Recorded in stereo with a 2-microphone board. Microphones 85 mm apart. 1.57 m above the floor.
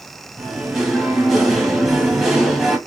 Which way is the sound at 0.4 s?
5° right (ahead or behind).